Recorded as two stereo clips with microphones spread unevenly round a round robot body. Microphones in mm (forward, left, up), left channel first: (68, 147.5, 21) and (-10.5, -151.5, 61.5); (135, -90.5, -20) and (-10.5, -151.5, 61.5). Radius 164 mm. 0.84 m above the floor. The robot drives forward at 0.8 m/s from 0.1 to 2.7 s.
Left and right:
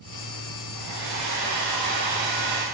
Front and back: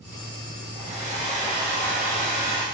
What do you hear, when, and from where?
0.8 s a hair dryer: 105° right, 5.5 m; by 2.6 s 120° right, 6 m